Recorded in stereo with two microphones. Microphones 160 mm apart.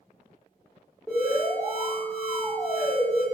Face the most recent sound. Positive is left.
turn(degrees=5)  # may be behind; listen again after turning